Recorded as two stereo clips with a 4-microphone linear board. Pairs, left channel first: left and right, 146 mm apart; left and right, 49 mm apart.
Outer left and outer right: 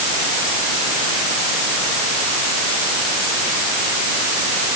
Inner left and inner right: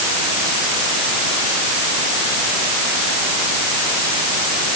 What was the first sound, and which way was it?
Only background noise.